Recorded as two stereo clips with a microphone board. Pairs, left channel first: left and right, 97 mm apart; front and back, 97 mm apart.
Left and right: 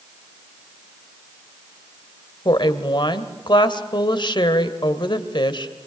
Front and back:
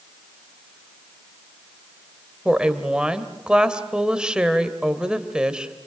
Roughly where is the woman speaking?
Left.